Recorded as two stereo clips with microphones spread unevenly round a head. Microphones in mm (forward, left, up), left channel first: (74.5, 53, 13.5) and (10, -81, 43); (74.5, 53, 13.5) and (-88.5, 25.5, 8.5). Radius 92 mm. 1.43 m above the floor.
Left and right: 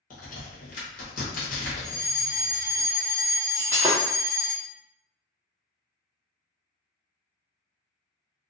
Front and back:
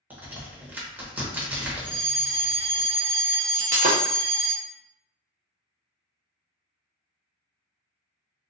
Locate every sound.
0.1 s a crack: 110° left, 1.1 m
1.8 s a fire alarm: 165° left, 0.7 m
3.5 s breaking glass: 175° right, 0.8 m